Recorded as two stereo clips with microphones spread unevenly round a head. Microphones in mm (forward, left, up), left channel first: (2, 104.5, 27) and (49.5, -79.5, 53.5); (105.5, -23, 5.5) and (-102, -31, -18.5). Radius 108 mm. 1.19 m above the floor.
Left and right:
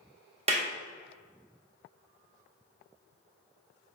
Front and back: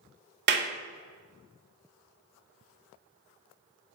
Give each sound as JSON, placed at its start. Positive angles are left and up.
{"t": 0.5, "sound": "a clap", "azimuth_deg": -140, "distance_m": 1.9}